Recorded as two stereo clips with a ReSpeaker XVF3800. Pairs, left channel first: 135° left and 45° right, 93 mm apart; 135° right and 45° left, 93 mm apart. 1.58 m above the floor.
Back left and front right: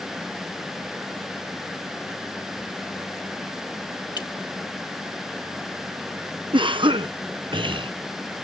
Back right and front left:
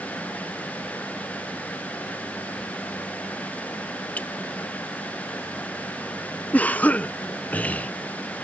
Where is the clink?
155° left.